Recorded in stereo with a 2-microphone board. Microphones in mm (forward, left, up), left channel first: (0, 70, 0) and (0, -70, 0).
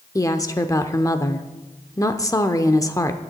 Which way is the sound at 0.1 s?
25° left (ahead or behind).